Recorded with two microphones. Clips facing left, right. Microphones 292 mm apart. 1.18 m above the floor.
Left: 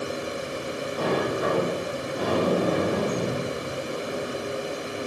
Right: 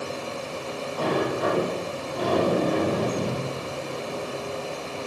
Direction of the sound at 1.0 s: 30° left (ahead or behind).